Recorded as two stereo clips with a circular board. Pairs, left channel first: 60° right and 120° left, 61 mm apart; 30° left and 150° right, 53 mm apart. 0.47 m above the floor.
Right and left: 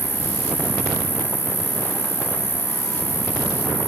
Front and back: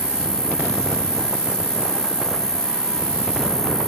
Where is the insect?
145° right, 4 m.